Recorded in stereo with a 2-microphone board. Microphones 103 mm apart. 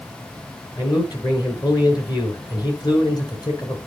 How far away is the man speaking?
About 3.5 m.